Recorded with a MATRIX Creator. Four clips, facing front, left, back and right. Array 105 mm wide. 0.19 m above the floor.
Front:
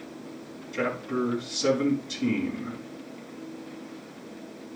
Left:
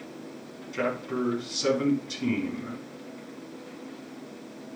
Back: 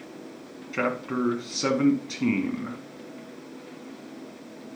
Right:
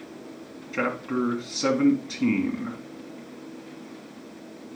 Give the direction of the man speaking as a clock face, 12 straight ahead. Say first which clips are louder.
Right 2 dB, back 1 dB; 5 o'clock.